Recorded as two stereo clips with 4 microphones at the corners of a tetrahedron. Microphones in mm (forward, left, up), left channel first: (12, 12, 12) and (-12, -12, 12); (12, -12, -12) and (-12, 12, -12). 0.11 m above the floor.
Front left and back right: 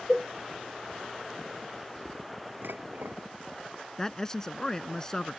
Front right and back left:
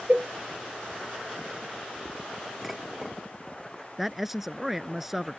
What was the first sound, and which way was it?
A cowbell, 145° left.